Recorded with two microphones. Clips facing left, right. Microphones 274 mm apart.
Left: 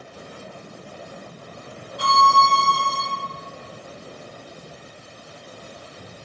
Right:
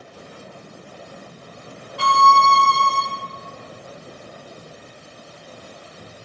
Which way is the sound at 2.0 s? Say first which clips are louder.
Right 2 dB; 80° right.